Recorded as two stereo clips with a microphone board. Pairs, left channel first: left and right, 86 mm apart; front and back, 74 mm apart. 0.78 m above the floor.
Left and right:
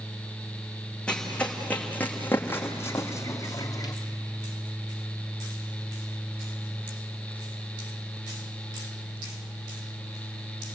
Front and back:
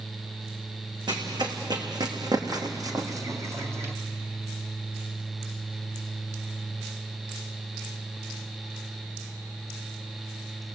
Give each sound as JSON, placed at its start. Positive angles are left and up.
{"t": 1.1, "sound": "running footsteps", "azimuth_deg": 165, "distance_m": 3.5}